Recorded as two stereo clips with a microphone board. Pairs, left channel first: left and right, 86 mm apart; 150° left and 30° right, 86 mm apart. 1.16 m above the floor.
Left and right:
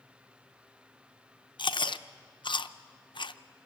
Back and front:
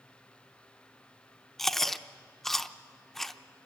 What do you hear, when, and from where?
1.6 s chewing: 65° left, 0.5 m